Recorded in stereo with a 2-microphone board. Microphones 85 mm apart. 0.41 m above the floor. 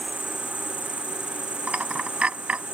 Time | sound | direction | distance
0.0 | an insect | 25° left (ahead or behind) | ?
1.7 | a dropped coin | 15° right (ahead or behind) | ?